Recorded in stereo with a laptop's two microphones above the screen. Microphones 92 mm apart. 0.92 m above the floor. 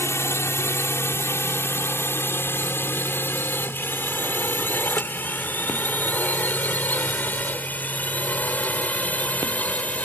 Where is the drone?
30° left (ahead or behind); by 10.1 s 15° left (ahead or behind).